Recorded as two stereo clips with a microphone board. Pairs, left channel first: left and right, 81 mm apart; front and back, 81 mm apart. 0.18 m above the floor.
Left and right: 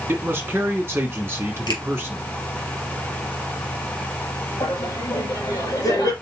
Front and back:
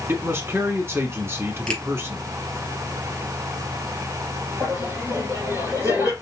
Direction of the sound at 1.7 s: 80° left.